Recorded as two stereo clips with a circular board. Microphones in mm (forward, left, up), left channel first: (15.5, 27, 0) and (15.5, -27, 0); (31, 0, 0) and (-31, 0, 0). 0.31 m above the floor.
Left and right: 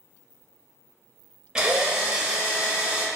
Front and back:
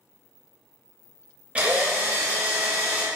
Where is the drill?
140° right, 0.7 m.